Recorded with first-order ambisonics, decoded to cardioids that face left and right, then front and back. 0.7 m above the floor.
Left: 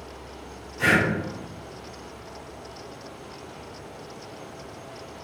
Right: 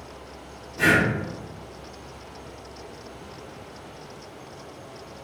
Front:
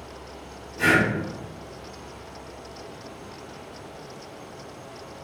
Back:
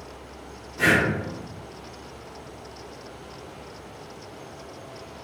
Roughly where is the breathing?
Behind right.